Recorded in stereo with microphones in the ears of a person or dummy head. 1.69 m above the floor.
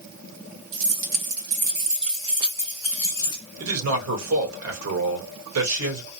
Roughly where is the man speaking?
Right.